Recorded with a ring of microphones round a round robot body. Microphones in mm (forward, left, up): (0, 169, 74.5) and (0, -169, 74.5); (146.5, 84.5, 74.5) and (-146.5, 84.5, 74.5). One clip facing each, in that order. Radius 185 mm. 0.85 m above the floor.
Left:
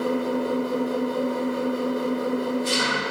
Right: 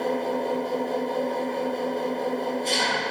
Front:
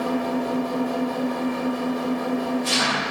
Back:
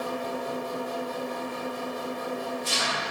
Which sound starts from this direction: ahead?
An engine running, at 0.0 s.